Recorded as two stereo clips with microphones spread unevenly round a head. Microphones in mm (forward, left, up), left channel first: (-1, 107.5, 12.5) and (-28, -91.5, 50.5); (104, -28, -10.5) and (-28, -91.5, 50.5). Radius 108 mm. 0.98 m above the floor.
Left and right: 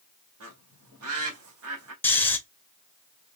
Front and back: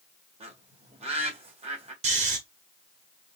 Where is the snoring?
170° left, 0.8 m.